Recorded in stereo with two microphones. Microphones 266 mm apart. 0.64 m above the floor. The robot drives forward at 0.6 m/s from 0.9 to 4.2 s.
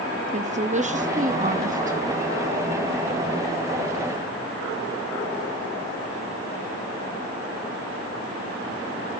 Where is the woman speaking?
25° right (ahead or behind), 0.9 m; by 2.0 s 30° right (ahead or behind), 0.9 m.